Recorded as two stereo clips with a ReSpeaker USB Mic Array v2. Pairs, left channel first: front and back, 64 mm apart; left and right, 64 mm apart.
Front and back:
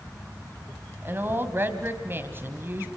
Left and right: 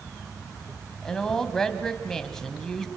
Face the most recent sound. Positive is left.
turn(degrees=165)